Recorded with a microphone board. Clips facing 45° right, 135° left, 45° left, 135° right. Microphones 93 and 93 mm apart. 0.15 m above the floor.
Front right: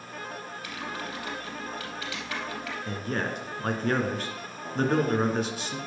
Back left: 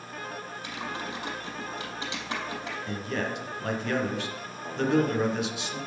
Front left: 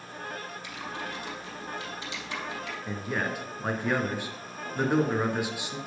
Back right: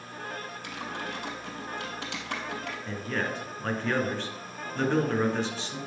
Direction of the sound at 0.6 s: 160° right.